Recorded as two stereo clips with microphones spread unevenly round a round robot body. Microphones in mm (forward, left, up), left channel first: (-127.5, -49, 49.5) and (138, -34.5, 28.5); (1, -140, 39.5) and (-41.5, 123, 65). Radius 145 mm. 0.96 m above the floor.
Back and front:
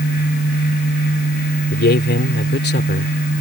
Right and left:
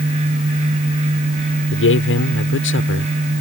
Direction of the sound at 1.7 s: 125° right.